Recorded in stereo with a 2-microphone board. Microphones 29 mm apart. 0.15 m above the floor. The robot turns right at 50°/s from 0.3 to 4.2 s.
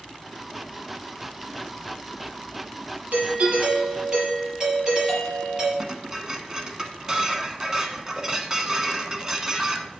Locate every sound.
3.1 s a doorbell: 80° right, 4 m; by 5.7 s 25° right, 4 m
5.8 s dishes clattering: 20° right (ahead or behind), 1.0 m